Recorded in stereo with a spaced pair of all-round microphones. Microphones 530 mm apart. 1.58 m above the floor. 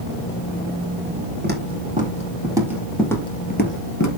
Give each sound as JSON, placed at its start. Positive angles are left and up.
{"t": 1.4, "sound": "footsteps", "side_deg": -20, "distance_m": 4.0}